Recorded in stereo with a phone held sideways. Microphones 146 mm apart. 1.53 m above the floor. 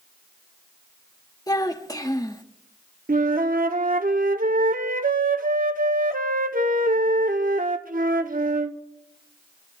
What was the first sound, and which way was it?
A child speaking, 25° left (ahead or behind).